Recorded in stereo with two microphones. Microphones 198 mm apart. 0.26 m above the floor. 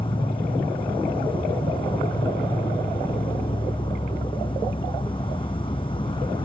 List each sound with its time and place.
0.0 s an insect: 25° left (ahead or behind)